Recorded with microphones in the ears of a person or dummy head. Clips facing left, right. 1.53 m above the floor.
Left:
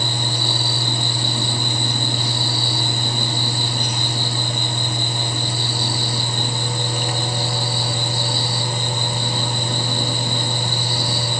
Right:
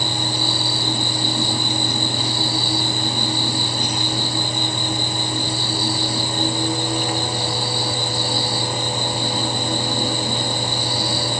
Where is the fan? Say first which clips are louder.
Right 1 dB; 50° right (ahead or behind), 3 m.